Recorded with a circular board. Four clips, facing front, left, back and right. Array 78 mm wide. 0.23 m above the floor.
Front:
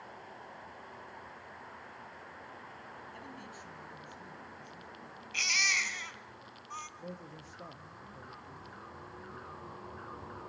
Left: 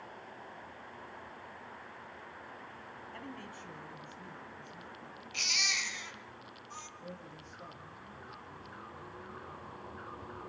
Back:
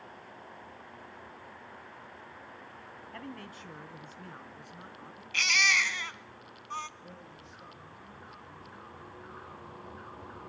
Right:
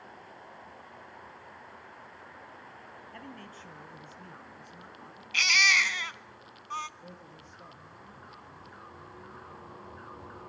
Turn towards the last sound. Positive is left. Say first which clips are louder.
# left 1 dB, front 3 dB
turn(degrees=-5)